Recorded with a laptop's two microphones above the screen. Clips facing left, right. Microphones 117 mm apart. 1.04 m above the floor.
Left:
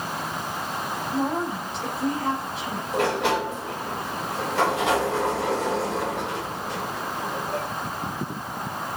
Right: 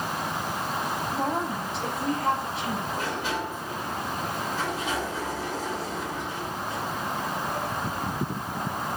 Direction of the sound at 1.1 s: Centre (ahead or behind).